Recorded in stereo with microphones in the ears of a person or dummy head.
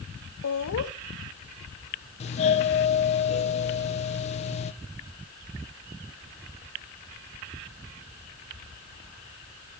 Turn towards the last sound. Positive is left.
turn(degrees=35)  # may be behind; listen again after turning